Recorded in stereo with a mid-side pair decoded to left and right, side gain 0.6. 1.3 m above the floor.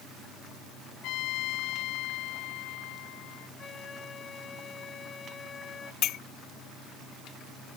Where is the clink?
65° left.